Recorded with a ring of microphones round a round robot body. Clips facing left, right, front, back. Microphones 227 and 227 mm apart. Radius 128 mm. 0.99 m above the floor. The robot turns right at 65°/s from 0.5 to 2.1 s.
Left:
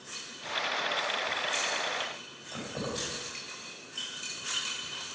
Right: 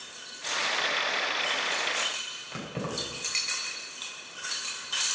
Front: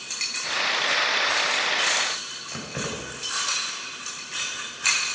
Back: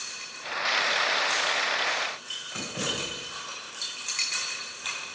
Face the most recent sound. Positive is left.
turn(degrees=-25)